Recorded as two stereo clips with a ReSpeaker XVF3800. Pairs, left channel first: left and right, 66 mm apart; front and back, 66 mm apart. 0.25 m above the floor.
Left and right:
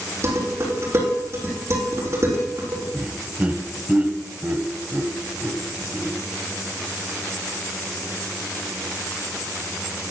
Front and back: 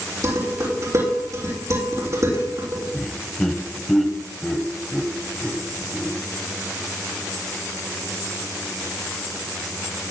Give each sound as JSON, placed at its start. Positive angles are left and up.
{"t": 0.2, "sound": "dishes clattering", "azimuth_deg": -140, "distance_m": 7.0}
{"t": 2.9, "sound": "laughter", "azimuth_deg": -75, "distance_m": 1.0}